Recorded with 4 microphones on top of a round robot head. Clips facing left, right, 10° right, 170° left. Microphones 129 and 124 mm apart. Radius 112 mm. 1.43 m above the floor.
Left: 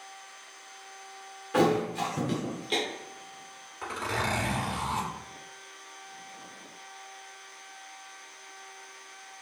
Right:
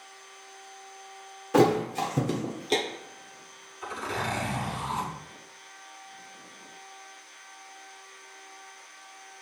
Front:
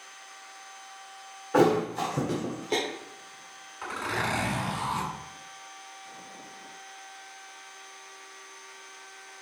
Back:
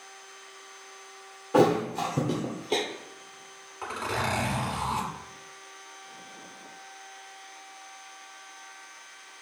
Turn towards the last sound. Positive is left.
turn(degrees=110)